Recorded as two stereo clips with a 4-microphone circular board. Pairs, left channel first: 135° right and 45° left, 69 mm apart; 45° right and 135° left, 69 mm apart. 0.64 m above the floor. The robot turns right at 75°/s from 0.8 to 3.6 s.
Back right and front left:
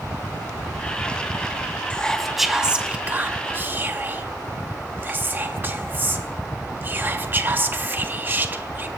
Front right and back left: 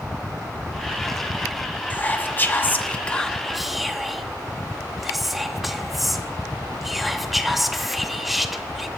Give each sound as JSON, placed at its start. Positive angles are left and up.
{"t": 1.9, "sound": "whispering", "azimuth_deg": -80, "distance_m": 0.6}